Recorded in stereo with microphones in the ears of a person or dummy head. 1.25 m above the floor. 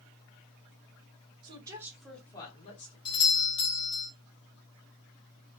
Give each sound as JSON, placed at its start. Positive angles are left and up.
{"t": 1.4, "sound": "a woman speaking", "side_deg": -30, "distance_m": 1.8}
{"t": 3.0, "sound": "a doorbell", "side_deg": 25, "distance_m": 1.3}